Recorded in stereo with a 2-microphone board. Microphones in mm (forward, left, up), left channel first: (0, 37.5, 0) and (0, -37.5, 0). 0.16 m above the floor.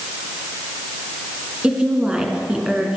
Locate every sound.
1.6 s a woman speaking: 15° right (ahead or behind), 2 m